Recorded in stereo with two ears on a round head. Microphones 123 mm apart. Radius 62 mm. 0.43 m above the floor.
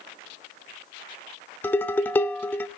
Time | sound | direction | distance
1.6 | dishes clattering | 15° left (ahead or behind) | 0.6 m